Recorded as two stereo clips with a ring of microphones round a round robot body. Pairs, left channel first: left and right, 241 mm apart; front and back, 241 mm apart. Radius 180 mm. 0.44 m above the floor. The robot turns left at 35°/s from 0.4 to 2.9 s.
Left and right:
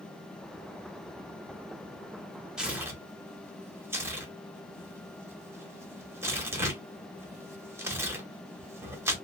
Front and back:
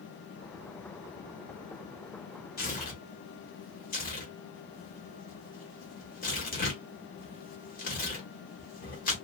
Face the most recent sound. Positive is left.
turn(degrees=-15)